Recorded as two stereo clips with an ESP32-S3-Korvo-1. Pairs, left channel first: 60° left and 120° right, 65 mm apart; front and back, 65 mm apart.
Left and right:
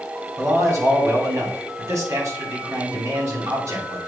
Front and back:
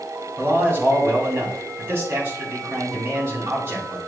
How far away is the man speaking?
About 2.5 m.